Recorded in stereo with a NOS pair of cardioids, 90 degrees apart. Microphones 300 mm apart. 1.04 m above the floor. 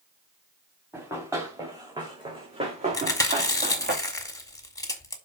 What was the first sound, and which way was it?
Running footsteps, 10° right.